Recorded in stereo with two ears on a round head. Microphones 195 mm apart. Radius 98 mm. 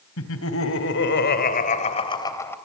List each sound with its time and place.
0.2 s laughter: 70° left (ahead or behind), 3.5 m; by 2.6 s 10° left (ahead or behind), 3 m